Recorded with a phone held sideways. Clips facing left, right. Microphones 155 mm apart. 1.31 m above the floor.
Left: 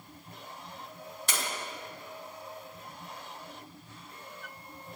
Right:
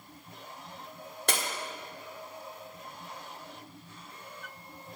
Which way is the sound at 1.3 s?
60° right (ahead or behind).